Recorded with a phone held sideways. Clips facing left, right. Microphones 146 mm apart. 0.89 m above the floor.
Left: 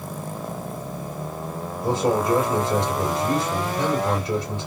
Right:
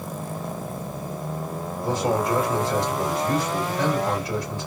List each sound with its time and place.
1.8 s a man speaking: 20° left (ahead or behind), 2.5 m